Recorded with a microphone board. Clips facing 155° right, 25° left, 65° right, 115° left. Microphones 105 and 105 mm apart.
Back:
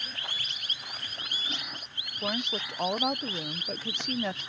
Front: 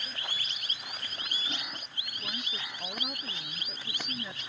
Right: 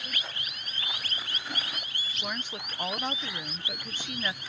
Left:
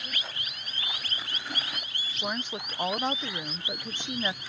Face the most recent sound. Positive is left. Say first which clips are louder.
# back 10 dB, left 4 dB
turn(degrees=-175)